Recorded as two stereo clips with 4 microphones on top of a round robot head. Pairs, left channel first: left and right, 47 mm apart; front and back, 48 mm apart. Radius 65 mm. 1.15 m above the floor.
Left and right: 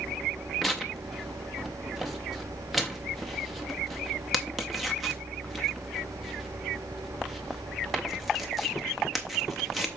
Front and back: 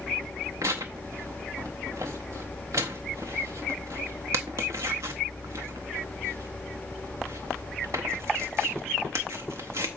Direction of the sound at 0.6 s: 175° right.